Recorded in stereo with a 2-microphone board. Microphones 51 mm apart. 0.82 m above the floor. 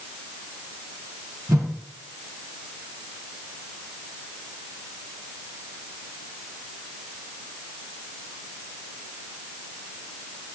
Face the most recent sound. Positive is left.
turn(degrees=-75)  # may be behind; listen again after turning